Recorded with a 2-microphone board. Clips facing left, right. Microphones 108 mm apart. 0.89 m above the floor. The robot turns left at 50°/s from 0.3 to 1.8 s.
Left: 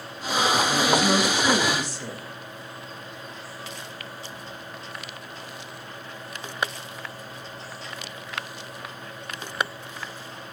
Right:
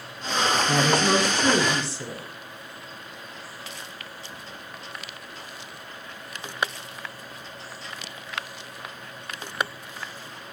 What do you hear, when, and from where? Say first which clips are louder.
0.7 s a woman speaking: even; 95° right, 7 m; by 2.3 s 155° right, 7 m